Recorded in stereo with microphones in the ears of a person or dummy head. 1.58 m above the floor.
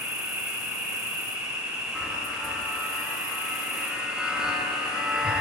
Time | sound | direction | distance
0.0 | an insect | 10° right (ahead or behind) | 0.7 m
1.9 | a chime | 5° right (ahead or behind) | 0.5 m